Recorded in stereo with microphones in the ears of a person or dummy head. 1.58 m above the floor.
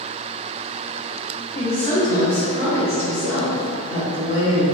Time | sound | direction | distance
1.6 | a woman speaking | 45° left (ahead or behind) | 0.9 m